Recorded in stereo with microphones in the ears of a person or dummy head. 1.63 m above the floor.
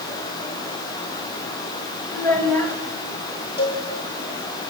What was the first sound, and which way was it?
A child speaking, 5° left (ahead or behind).